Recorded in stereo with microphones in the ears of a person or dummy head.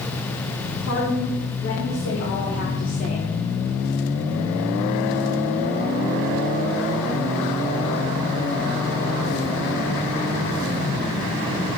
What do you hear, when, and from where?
0.9 s a woman speaking: 65° left (ahead or behind), 4 m; by 3.3 s 25° left (ahead or behind), 1.3 m